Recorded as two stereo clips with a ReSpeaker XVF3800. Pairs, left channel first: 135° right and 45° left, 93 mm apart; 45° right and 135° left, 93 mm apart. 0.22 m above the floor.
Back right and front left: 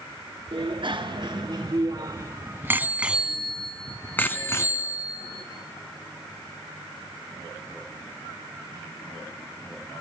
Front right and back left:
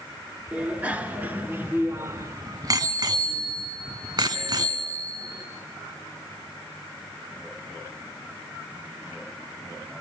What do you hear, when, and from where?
0.5 s a bicycle bell: 60° left, 2 m; by 5.4 s straight behind, 2 m